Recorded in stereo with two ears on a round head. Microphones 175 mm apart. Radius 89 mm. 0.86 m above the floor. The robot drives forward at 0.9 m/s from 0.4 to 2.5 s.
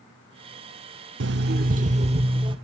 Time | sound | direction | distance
1.2 | an alarm clock | 65° right (ahead or behind) | 0.7 m